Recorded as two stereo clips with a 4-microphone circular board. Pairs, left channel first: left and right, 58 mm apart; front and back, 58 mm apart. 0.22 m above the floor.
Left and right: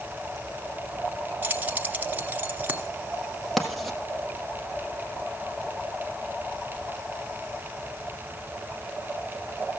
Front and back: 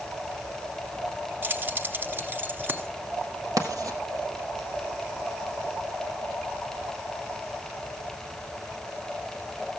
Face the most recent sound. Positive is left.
turn(degrees=180)